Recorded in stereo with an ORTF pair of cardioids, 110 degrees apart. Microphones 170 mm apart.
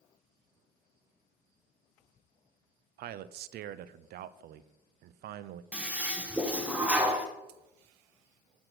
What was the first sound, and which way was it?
A man speaking, 65° right.